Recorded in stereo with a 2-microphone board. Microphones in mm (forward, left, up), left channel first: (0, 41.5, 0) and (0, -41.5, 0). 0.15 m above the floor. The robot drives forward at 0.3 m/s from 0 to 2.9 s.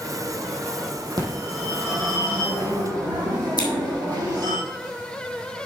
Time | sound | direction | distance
1.2 | a phone ringing | 55° right (ahead or behind) | 3 m
3.6 | scissors | 50° left (ahead or behind) | 2 m